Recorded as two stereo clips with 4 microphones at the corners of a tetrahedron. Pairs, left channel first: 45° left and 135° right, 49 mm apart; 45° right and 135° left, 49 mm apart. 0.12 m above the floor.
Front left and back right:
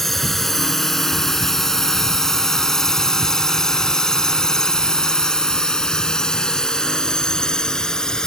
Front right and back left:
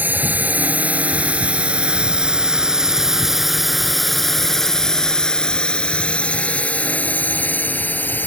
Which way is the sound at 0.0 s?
125° left.